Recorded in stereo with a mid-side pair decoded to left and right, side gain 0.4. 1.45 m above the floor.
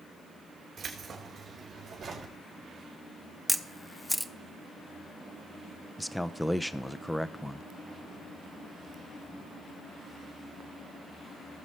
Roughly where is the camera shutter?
Ahead.